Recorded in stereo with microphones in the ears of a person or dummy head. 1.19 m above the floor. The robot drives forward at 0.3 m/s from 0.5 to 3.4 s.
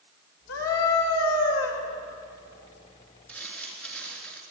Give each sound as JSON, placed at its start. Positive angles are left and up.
{"t": 0.5, "sound": "a scream", "side_deg": 85, "distance_m": 6.0}
{"t": 3.3, "sound": "crumpling", "side_deg": 5, "distance_m": 4.5}